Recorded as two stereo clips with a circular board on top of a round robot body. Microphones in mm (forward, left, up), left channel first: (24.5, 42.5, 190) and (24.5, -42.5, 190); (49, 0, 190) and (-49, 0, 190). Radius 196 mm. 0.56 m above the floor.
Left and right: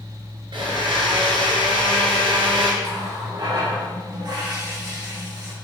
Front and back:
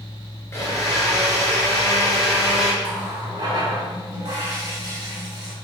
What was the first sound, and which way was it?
A blender, 65° right.